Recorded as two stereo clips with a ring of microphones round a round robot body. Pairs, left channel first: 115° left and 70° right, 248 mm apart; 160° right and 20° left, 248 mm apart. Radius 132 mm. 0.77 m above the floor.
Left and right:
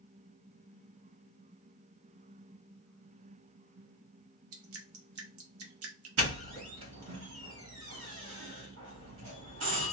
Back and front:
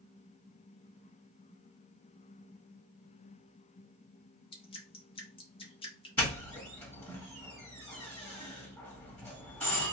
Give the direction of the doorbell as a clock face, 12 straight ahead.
3 o'clock.